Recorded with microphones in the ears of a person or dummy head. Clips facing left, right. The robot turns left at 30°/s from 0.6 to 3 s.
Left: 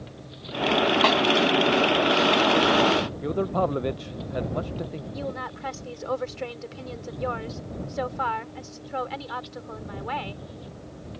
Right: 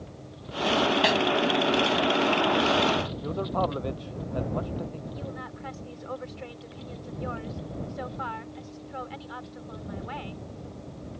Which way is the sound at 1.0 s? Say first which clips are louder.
Left 2 dB; 10° right (ahead or behind).